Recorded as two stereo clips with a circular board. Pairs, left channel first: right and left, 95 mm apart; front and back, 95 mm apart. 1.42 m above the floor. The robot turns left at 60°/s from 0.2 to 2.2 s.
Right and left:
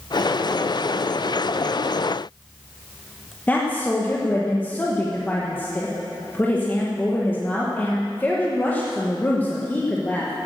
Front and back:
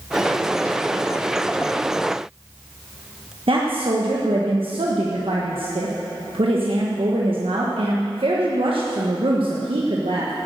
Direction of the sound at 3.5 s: 160° right.